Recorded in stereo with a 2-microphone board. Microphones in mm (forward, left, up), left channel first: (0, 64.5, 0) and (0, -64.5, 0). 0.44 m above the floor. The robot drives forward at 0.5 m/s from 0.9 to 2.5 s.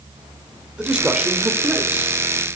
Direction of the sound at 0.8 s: 5° right (ahead or behind).